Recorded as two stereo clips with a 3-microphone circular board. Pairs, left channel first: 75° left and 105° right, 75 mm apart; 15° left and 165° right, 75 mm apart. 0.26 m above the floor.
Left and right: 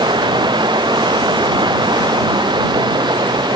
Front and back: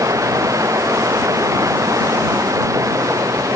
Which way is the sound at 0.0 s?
120° right.